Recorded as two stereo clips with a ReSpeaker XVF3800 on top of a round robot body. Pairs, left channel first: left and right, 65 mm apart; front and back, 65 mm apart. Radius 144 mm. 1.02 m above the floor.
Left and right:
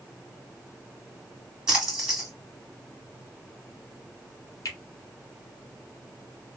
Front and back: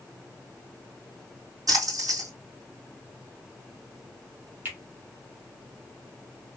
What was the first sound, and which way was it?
A splash, 170° right.